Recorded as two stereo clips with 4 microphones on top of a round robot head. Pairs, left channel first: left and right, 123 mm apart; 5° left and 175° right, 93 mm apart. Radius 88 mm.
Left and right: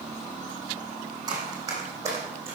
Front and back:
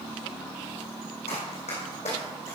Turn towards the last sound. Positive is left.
turn(degrees=-20)